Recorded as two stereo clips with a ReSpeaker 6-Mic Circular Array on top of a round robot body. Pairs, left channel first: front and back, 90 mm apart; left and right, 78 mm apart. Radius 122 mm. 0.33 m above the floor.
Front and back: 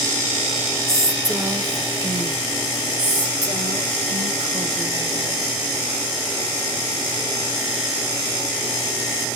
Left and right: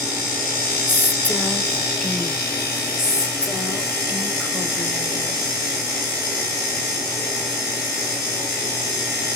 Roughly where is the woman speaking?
Behind left.